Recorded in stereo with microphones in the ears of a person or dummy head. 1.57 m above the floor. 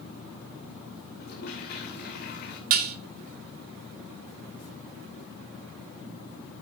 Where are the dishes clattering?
50° right (ahead or behind), 1.1 m.